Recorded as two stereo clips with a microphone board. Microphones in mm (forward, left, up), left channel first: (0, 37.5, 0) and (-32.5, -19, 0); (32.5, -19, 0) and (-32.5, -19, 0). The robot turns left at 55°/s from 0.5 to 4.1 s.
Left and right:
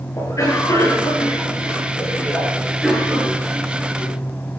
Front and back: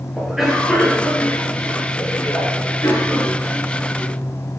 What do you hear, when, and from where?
0.2 s a cough: 95° left, 8 m; by 4.1 s 105° right, 8 m